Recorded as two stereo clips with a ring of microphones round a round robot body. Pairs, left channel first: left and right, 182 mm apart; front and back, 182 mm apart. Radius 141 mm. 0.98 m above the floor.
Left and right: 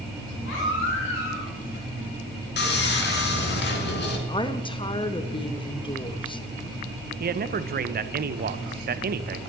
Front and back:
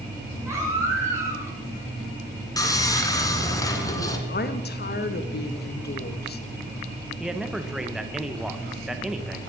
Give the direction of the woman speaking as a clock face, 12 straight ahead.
11 o'clock.